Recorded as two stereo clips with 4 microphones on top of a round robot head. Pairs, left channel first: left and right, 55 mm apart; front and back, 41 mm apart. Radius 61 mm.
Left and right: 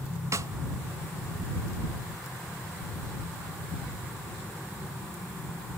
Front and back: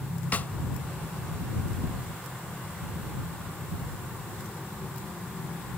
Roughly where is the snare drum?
Ahead right.